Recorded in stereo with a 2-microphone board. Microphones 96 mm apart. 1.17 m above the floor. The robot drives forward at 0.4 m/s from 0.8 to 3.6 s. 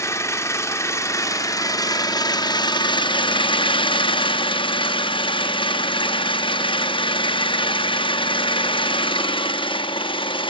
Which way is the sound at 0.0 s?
30° left (ahead or behind).